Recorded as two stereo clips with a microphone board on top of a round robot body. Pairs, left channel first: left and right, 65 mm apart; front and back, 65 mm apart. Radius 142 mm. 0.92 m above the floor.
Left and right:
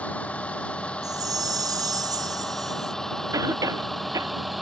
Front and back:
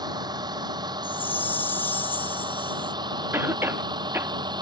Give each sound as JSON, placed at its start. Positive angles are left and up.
{"t": 0.0, "sound": "a vehicle", "azimuth_deg": 160}
{"t": 1.0, "sound": "a chime", "azimuth_deg": -65}
{"t": 3.3, "sound": "a cough", "azimuth_deg": -125}